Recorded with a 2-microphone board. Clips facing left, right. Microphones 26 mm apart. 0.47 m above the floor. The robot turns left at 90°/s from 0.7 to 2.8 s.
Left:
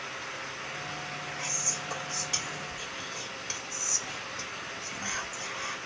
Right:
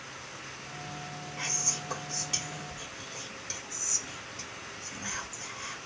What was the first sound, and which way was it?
Whispering, 25° right (ahead or behind).